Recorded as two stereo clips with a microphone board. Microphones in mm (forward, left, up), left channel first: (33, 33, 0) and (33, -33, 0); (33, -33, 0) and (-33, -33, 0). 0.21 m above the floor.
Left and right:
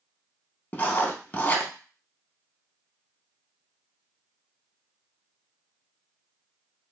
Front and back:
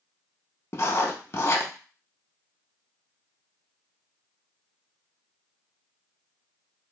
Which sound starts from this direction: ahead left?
Writing, at 0.7 s.